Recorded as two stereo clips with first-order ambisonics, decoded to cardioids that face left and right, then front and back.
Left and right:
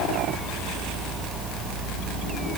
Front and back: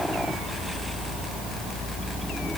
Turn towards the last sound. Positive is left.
No sound to turn to.